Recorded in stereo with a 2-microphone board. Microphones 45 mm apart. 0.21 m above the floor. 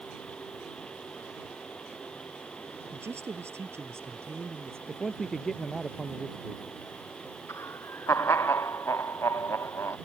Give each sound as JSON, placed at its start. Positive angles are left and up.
{"t": 2.9, "sound": "a woman speaking", "side_deg": -75}
{"t": 4.9, "sound": "a man speaking", "side_deg": 5}
{"t": 7.5, "sound": "laughter", "side_deg": 85}